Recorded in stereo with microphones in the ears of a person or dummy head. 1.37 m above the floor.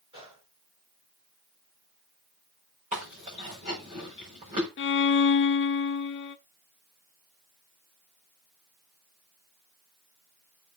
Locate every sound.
0.1 s a gunshot: 25° right (ahead or behind), 5.5 m
2.9 s chewing: 35° right (ahead or behind), 5.5 m
4.8 s a violin: 50° left (ahead or behind), 0.7 m